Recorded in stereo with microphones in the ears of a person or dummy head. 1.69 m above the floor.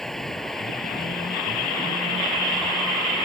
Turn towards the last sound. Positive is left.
turn(degrees=5)  # may be behind; listen again after turning